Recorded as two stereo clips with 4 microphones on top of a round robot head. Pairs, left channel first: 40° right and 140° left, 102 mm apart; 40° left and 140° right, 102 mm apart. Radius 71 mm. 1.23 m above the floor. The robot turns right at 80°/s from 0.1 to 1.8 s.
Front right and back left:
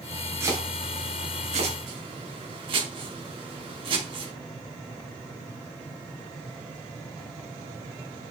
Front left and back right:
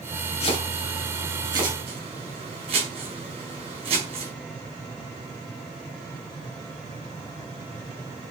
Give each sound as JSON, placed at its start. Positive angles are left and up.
{"t": 0.4, "sound": "chopping", "azimuth_deg": 75, "distance_m": 4.5}